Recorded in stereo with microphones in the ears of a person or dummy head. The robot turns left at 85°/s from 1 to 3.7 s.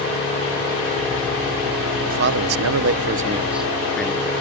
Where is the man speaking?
45° right; by 4.4 s 175° left.